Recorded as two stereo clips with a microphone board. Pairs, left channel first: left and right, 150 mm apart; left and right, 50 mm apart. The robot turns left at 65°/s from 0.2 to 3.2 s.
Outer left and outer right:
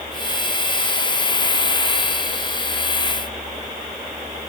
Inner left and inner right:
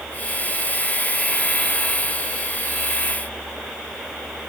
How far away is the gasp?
I don't hear a gasp.